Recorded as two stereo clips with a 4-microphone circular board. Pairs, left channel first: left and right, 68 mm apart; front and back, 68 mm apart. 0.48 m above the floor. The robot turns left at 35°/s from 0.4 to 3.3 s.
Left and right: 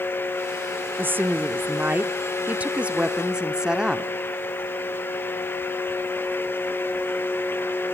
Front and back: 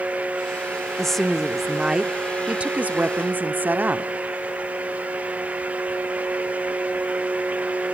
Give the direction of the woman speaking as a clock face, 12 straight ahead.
3 o'clock.